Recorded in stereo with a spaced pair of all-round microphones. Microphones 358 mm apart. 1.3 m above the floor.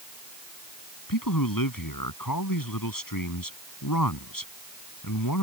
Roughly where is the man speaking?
Left.